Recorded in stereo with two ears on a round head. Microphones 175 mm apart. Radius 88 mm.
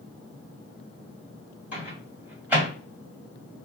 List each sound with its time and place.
1.7 s a microwave: 10° right (ahead or behind), 1.5 m